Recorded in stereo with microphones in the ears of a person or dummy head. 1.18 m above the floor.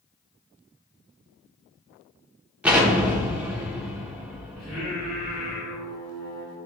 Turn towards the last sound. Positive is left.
turn(degrees=0)  # may be behind; listen again after turning